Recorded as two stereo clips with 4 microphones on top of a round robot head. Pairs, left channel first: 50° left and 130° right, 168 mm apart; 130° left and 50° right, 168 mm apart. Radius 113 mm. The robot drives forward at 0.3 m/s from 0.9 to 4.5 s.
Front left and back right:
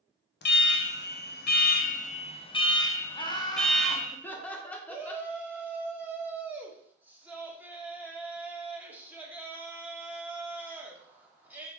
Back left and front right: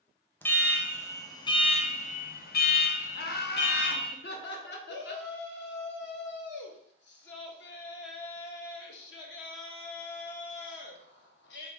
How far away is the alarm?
About 0.6 m.